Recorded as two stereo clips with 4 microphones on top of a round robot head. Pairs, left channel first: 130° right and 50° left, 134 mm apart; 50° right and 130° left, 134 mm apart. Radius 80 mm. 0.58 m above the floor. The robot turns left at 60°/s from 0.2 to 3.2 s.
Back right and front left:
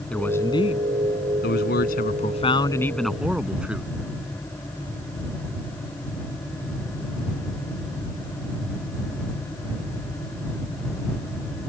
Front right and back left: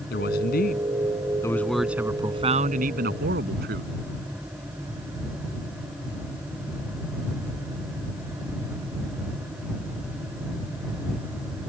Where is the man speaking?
45° right; by 3.9 s 135° left.